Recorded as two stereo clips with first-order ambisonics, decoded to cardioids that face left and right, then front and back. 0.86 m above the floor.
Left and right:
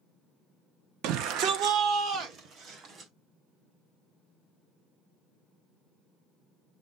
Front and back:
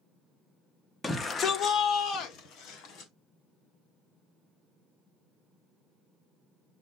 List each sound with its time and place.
1.0 s a shout: 80° right, 0.6 m; by 3.1 s 35° right, 1.7 m